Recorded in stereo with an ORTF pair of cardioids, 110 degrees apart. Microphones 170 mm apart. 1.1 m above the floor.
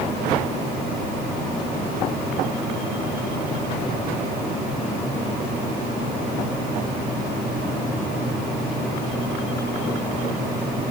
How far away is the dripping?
No dripping in this recording.